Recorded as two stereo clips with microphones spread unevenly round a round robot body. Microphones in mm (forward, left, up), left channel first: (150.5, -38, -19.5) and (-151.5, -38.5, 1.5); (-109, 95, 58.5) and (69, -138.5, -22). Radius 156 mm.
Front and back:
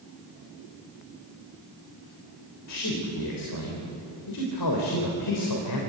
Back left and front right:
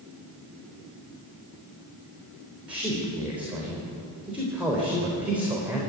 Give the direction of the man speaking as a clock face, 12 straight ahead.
11 o'clock.